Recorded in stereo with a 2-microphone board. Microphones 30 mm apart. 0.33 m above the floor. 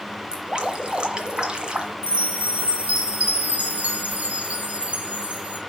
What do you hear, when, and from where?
0.3 s dripping: 30° right (ahead or behind), 1.5 m
2.0 s a chime: 55° right (ahead or behind), 1.4 m